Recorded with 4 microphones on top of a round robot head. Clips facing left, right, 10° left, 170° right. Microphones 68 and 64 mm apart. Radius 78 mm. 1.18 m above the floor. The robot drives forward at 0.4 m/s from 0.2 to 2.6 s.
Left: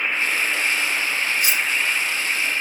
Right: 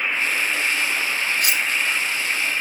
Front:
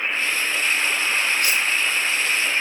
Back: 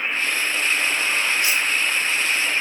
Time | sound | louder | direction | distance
1.4 | cutlery clinking | even, even | 50° right | 0.6 m